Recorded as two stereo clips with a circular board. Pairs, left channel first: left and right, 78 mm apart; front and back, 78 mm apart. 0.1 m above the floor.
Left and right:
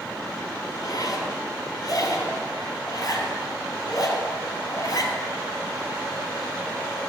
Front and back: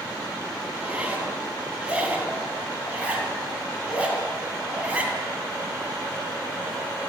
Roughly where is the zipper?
Behind left.